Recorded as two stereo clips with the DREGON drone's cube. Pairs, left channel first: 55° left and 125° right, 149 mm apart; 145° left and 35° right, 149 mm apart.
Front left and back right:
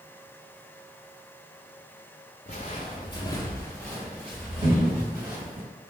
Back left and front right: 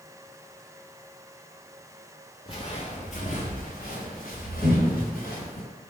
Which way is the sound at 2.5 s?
90° left.